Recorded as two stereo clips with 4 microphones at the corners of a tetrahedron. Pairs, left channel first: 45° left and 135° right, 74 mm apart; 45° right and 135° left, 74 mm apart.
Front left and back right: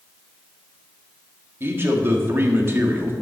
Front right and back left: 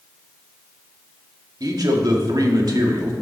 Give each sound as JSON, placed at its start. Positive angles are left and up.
{"t": 1.6, "sound": "a man speaking", "azimuth_deg": 165, "distance_m": 1.9}